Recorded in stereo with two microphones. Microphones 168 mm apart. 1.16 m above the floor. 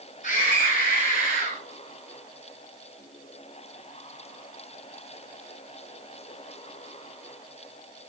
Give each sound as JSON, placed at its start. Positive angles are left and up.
{"t": 0.2, "sound": "a scream", "side_deg": 55, "distance_m": 5.0}